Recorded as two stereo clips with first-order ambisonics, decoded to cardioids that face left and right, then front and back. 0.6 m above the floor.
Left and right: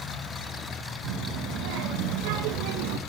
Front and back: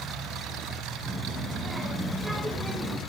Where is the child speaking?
100° right, 2.5 m; by 3.0 s 75° right, 0.7 m.